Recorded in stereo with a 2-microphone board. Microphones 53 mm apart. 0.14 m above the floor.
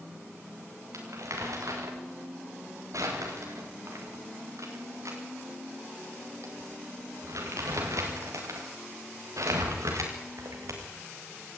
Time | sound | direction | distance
0.9 | crumpling | 75° right (ahead or behind) | 6.5 m